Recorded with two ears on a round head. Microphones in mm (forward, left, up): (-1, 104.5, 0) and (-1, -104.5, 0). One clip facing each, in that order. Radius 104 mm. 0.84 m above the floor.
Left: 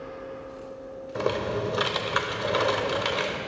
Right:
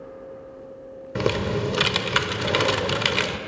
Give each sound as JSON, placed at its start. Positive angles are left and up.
{"t": 1.1, "sound": "typing on a keyboard", "side_deg": -40, "distance_m": 0.6}